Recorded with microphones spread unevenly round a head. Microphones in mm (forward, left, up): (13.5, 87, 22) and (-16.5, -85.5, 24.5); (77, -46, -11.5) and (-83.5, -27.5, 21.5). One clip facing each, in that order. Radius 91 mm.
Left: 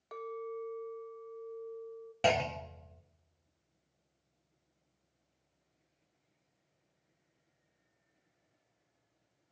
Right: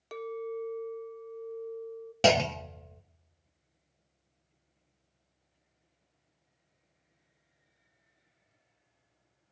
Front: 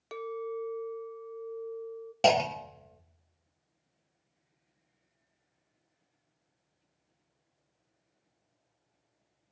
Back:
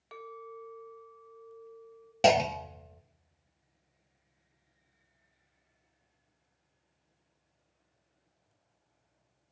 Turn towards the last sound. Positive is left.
turn(degrees=-100)